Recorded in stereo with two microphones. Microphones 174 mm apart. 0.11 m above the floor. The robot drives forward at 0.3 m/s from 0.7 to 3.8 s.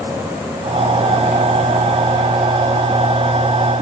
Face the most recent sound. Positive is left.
No sound to turn to.